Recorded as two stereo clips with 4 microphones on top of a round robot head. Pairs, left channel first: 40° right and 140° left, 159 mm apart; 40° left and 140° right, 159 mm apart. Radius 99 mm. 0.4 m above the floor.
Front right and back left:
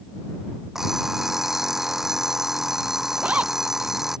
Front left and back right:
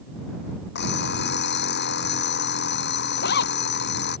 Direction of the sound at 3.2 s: 60° left.